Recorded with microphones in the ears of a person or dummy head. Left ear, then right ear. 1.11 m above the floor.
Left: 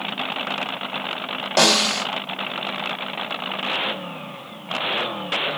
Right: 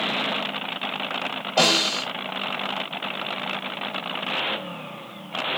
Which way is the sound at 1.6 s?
60° left (ahead or behind).